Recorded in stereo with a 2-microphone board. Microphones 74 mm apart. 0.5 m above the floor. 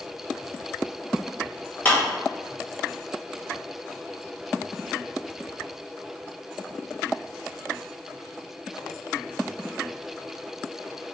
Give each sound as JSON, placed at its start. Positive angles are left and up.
{"t": 1.9, "sound": "a clap", "side_deg": 20, "distance_m": 2.0}